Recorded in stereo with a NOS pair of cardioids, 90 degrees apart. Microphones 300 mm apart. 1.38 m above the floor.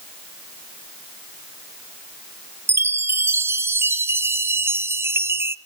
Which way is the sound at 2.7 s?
10° right.